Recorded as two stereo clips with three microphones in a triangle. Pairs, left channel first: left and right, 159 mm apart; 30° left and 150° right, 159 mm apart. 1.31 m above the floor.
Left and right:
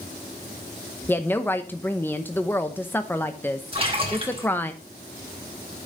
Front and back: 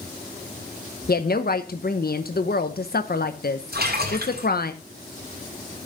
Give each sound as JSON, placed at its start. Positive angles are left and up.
{"t": 1.1, "sound": "a woman speaking", "azimuth_deg": 15, "distance_m": 0.9}
{"t": 3.7, "sound": "a splash", "azimuth_deg": -145, "distance_m": 5.5}